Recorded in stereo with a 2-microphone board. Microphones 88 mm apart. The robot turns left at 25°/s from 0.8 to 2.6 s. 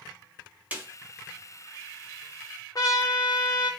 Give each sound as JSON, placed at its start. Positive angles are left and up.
{"t": 0.7, "sound": "a snare drum", "side_deg": -20, "distance_m": 0.8}
{"t": 2.8, "sound": "a trumpet", "side_deg": 45, "distance_m": 0.6}